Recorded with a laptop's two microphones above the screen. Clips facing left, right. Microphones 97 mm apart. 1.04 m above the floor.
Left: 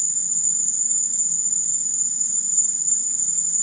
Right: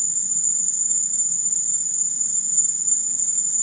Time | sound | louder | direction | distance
0.0 | an insect | even | 20° left (ahead or behind) | ?